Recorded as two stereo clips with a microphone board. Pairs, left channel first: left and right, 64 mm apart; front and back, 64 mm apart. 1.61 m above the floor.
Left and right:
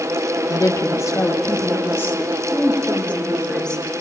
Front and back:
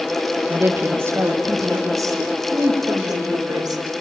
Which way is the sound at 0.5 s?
120° left.